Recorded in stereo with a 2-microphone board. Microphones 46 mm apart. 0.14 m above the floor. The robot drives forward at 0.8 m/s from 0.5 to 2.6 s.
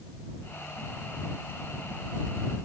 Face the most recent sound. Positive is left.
No sound to turn to.